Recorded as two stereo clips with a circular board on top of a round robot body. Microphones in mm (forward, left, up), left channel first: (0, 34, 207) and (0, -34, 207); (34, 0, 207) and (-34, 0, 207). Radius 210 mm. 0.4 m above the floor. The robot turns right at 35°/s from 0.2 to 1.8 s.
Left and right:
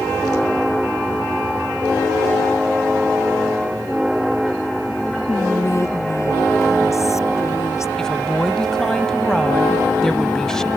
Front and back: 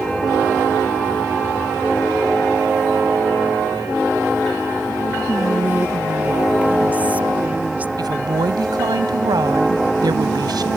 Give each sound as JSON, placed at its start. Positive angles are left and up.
{"t": 5.3, "sound": "whispering", "azimuth_deg": 120}
{"t": 8.0, "sound": "a woman speaking", "azimuth_deg": 170}